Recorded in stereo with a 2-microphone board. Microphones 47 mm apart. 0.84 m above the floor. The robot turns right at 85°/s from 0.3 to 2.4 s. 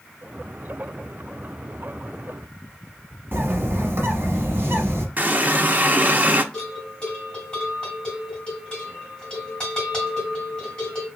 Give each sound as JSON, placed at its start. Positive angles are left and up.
{"t": 3.3, "sound": "a bird", "side_deg": -55, "distance_m": 1.0}
{"t": 5.2, "sound": "a running tap", "side_deg": -40, "distance_m": 0.5}
{"t": 6.5, "sound": "a bell", "side_deg": 20, "distance_m": 3.0}